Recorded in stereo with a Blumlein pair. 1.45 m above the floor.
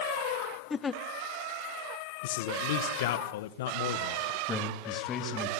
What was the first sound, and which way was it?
A giggle, 15° left.